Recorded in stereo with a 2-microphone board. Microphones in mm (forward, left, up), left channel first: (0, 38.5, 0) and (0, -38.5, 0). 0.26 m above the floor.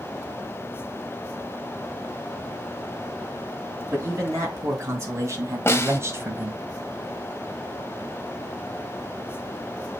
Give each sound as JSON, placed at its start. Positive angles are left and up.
{"t": 3.9, "sound": "a man speaking", "side_deg": -35, "distance_m": 4.0}
{"t": 5.7, "sound": "a snare drum", "side_deg": 35, "distance_m": 0.8}